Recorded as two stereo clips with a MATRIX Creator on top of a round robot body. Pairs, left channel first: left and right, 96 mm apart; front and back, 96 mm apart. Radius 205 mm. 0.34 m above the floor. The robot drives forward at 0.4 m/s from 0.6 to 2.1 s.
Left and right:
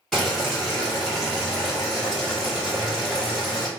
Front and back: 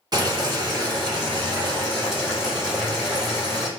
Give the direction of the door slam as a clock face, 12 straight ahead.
I don't hear a door slam.